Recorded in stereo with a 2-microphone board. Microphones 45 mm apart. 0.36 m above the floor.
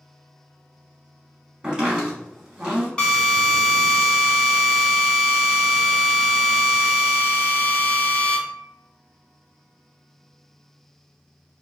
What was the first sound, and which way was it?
Chopping, 20° right (ahead or behind).